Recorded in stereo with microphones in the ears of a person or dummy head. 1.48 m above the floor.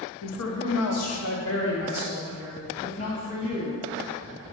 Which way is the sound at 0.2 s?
75° left (ahead or behind).